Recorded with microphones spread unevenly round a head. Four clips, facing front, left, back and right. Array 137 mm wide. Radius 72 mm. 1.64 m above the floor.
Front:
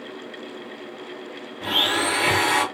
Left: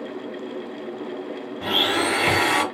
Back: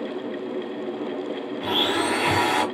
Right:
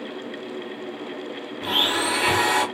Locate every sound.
1.6 s a blender: 75° left, 1.4 m